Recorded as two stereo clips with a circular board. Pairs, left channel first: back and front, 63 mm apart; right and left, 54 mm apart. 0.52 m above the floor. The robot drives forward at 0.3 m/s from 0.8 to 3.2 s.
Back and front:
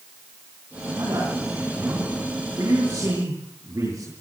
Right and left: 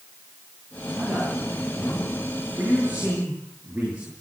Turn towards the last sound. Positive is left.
turn(degrees=30)